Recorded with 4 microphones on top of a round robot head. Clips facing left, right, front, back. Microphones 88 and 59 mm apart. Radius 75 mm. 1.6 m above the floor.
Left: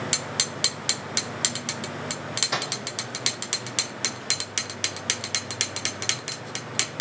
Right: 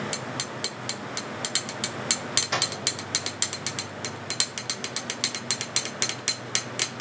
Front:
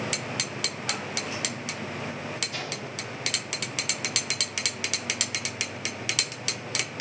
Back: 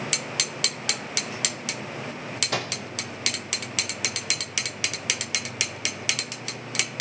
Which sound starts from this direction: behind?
A microwave, at 2.5 s.